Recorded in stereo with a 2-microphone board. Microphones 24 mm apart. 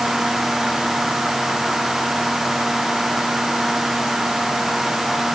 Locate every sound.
Only background noise.